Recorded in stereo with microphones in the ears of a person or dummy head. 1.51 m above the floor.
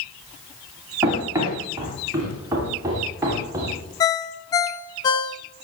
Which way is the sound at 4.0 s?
25° left (ahead or behind).